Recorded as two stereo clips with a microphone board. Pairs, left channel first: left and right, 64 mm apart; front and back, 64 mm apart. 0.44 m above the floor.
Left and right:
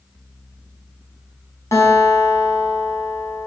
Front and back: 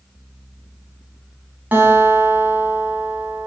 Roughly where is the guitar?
Behind left.